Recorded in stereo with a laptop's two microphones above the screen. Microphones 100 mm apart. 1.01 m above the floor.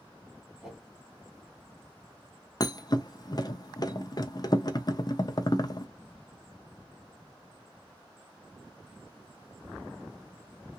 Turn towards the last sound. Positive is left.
turn(degrees=40)  # may be behind; listen again after turning